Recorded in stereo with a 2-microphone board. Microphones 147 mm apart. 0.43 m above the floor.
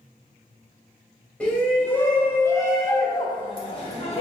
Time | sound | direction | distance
1.4 | a shout | 10° left (ahead or behind) | 1.9 m